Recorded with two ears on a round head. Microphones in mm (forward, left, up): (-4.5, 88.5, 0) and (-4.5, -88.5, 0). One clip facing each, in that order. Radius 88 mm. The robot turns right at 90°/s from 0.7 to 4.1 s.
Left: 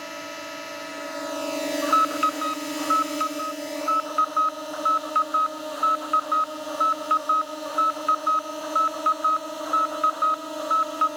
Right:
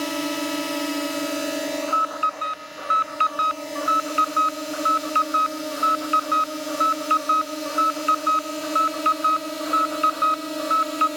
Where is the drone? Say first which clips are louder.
Right 11 dB; 90° right; by 11.2 s 145° right.